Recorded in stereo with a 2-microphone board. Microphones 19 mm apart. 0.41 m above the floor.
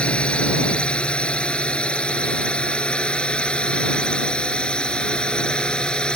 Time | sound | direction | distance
0.0 | a drone | 80° left | ?